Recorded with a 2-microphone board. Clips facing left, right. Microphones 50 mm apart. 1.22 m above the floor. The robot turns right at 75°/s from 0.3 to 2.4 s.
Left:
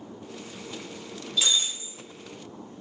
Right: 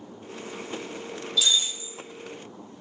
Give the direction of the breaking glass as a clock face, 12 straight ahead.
11 o'clock.